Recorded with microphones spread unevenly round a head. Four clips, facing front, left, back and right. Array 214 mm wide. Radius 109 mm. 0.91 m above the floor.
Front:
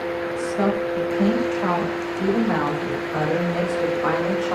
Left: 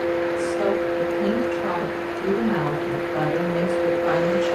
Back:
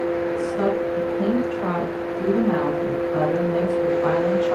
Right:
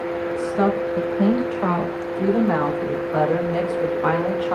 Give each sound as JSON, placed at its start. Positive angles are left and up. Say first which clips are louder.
{"t": 0.4, "sound": "a woman speaking", "louder": "right 1 dB, even", "azimuth_deg": -80, "distance_m": 6.0}